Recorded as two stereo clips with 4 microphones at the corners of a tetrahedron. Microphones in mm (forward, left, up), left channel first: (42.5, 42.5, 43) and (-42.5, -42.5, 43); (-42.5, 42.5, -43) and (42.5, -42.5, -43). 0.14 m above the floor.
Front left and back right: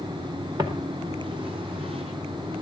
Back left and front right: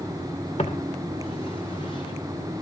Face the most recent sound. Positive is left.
turn(degrees=-170)